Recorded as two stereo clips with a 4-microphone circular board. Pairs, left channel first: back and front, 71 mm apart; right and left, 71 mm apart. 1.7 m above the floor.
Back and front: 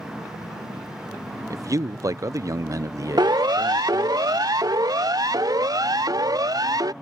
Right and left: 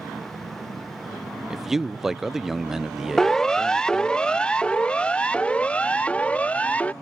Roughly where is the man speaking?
Ahead.